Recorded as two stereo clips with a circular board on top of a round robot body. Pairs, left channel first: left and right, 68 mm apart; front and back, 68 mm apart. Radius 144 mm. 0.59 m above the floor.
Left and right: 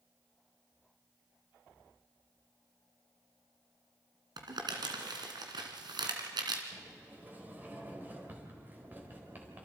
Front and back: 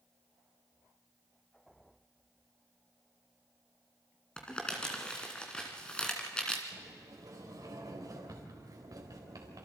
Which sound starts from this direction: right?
Crumpling, at 4.4 s.